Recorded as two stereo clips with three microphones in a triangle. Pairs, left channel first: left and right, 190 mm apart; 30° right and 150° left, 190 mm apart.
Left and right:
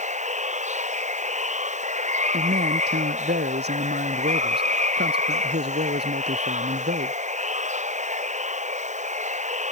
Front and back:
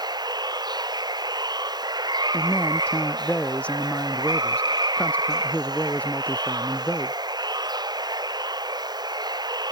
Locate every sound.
0.0 s running water: 140° right
2.3 s a man speaking: 115° right